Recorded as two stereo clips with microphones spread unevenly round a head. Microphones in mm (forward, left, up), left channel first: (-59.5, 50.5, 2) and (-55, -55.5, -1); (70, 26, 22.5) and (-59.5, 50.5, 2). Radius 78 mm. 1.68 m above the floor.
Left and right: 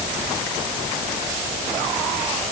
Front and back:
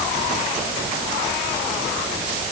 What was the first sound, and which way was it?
Only background noise.